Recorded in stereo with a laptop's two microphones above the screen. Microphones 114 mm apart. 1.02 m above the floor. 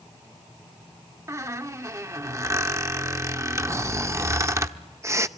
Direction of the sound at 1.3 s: 25° right (ahead or behind).